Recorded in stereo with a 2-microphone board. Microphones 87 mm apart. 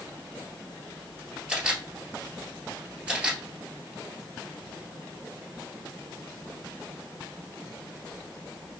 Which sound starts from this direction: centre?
A camera shutter, at 1.5 s.